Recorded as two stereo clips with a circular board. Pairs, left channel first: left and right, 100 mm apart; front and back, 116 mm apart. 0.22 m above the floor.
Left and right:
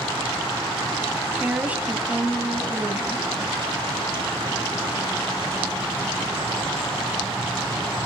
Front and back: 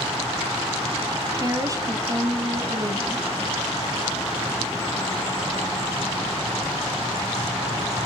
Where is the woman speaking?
155° right, 1.8 m.